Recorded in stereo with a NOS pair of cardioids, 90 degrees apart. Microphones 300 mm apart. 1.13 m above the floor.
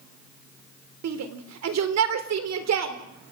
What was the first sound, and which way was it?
A shout, 60° right.